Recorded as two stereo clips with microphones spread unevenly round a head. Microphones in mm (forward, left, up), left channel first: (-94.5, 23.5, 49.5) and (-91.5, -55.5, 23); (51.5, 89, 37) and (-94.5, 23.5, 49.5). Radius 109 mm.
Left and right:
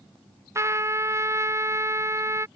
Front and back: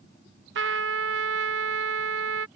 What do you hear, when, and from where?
0.6 s a trumpet: 145° right